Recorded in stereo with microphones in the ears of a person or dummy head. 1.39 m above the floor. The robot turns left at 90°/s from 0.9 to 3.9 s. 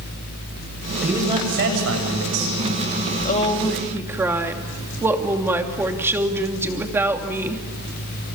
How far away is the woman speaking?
About 3 m.